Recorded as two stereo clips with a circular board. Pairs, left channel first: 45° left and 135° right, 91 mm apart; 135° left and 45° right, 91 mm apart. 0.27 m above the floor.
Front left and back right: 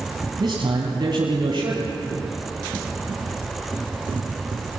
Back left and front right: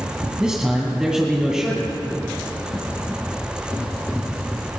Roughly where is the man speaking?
Behind right.